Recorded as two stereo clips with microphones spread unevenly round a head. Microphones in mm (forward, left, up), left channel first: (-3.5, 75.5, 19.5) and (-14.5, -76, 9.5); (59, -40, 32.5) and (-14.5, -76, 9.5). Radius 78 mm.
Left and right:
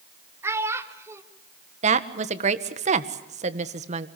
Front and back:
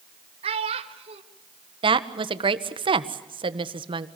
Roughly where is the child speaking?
Behind.